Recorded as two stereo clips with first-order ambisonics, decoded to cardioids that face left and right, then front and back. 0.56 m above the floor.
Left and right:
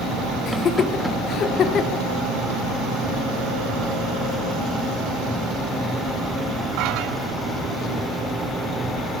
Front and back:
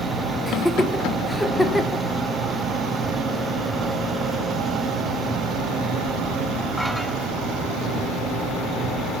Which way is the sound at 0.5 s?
80° left.